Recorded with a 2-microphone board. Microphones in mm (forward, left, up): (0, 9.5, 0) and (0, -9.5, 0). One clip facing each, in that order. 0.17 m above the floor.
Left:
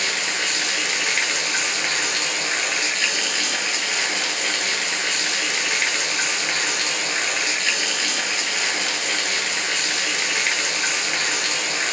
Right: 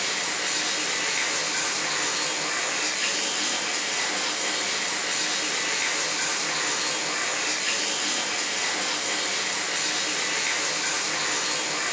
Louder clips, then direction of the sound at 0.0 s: Left 5 dB; 40° left (ahead or behind).